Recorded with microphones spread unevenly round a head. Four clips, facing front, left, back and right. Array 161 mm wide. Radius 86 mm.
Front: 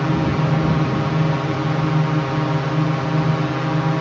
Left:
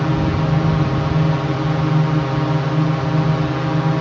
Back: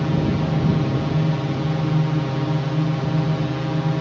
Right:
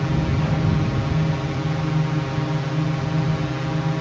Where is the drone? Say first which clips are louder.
Left 5 dB, front 2 dB; 45° left.